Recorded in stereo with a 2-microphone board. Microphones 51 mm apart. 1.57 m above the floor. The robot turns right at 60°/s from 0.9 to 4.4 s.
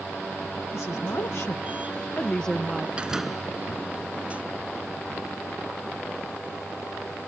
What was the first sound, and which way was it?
A woman speaking, 70° left.